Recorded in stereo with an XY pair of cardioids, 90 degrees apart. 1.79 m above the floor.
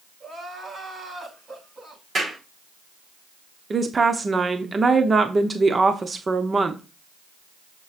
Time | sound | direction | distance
0.2 | crying | 40° right | 6 m
2.1 | a clap | 40° right | 5 m
3.7 | a woman speaking | 35° right | 1.0 m